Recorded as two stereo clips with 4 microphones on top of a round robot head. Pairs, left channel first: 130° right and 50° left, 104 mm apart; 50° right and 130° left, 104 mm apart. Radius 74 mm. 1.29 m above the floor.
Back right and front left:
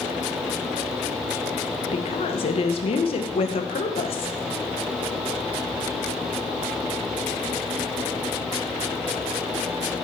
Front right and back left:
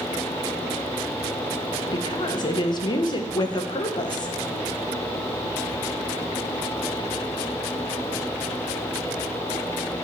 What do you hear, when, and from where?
1.9 s a woman speaking: 100° right, 1.0 m